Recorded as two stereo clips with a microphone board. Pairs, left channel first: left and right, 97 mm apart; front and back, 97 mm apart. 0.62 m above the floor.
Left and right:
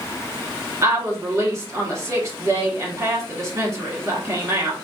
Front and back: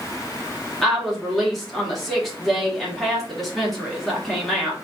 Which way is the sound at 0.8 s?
85° right.